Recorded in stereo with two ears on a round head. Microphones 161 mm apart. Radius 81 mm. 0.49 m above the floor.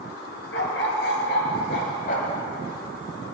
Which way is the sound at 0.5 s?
65° left (ahead or behind).